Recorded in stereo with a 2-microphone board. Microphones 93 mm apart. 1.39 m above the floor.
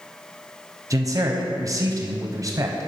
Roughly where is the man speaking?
Right.